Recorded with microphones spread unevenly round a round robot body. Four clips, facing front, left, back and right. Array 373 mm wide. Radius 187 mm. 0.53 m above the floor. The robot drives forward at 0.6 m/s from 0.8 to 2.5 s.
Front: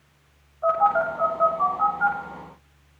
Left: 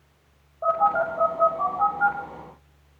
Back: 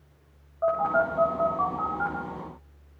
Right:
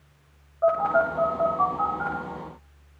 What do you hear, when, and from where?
0.6 s a phone buzzing: 140° right, 6.5 m; by 2.2 s 145° right, 7.5 m